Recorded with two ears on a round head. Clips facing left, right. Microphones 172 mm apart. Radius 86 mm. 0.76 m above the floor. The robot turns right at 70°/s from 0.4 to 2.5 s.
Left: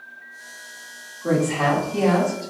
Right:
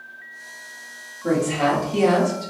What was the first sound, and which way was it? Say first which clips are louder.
A woman speaking: even; 170° right.